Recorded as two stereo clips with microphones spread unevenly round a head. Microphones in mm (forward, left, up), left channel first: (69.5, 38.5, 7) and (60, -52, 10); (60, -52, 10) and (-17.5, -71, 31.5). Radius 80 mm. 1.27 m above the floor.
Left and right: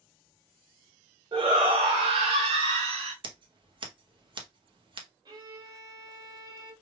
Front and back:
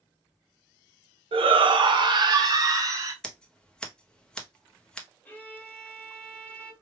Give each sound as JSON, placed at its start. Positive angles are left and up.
{"t": 1.3, "sound": "a shout", "azimuth_deg": -155, "distance_m": 1.0}
{"t": 3.2, "sound": "scissors", "azimuth_deg": -65, "distance_m": 1.0}
{"t": 5.2, "sound": "a violin", "azimuth_deg": -55, "distance_m": 1.5}